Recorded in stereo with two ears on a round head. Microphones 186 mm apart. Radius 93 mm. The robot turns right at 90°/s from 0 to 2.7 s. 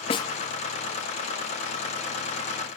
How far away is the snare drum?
About 0.6 m.